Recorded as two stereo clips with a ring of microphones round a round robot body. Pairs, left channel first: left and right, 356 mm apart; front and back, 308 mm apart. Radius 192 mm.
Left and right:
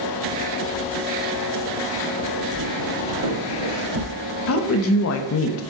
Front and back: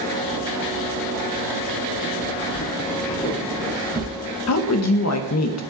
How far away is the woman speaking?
About 0.9 m.